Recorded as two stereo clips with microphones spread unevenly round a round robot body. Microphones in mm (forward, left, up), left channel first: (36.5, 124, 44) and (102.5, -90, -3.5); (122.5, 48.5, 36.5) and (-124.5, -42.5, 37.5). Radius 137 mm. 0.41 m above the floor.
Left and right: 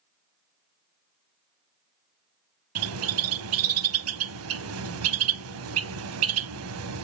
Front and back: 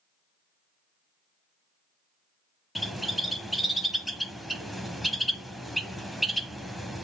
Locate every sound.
2.8 s a bird: 70° right, 1.1 m